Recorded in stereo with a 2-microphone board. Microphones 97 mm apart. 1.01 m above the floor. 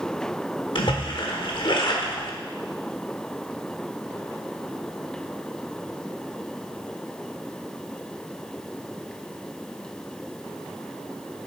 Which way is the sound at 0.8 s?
60° left (ahead or behind).